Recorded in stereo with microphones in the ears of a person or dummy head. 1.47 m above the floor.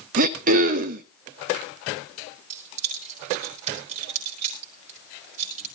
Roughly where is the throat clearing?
Right.